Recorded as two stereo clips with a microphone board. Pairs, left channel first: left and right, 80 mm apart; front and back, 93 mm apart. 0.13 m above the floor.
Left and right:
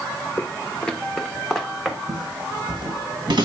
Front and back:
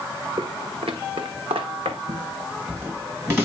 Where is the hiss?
No hiss in this recording.